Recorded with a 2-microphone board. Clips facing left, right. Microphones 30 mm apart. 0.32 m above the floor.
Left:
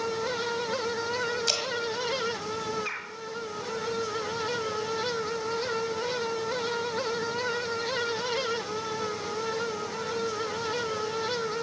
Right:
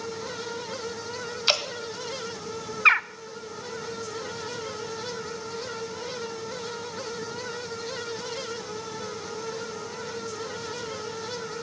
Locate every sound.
1.5 s dripping: 40° right (ahead or behind), 1.9 m
2.9 s a bird: 70° right (ahead or behind), 0.6 m